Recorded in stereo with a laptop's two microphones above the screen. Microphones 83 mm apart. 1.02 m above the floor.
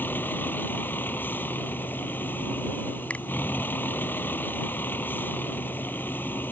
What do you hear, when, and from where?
0.0 s a vehicle: 25° left (ahead or behind)
3.1 s a finger snap: 15° left (ahead or behind)